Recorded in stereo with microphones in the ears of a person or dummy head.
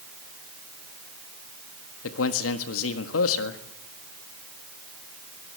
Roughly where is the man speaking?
Left.